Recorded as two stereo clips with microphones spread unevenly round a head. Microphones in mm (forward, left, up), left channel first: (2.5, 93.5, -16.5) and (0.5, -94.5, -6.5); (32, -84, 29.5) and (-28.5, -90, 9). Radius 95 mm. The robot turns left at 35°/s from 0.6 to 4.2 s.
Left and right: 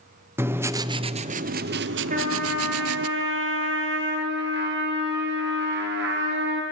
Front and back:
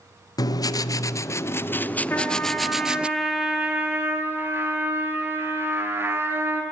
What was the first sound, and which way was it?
Writing, 15° right.